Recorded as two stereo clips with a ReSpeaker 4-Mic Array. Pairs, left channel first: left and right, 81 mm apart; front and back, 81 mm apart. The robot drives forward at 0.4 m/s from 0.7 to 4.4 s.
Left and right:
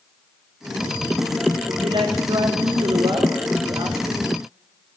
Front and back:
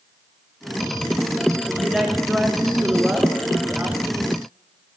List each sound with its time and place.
1.7 s a woman speaking: 90° right, 3.5 m; by 4.1 s 105° right, 3.5 m